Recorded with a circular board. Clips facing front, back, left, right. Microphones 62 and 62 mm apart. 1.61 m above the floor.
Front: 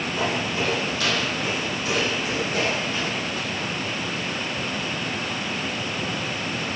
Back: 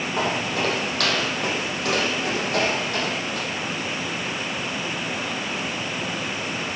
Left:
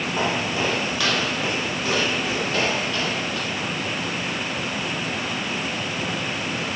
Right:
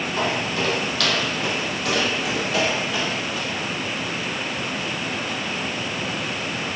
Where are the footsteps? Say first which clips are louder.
Back 2 dB, even; 160° left, 4.5 m; by 3.5 s 170° right, 4 m.